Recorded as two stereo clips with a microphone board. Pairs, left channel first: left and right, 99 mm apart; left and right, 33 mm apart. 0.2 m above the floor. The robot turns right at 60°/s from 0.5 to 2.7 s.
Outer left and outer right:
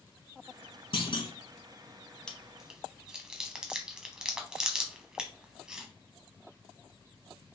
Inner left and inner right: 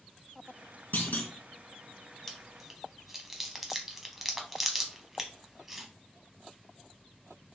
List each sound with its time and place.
0.9 s a clunk: 60° left (ahead or behind), 1.2 m; by 1.3 s 50° left (ahead or behind), 1.2 m
2.3 s chewing: 5° left (ahead or behind), 0.9 m; by 5.9 s 5° right (ahead or behind), 0.9 m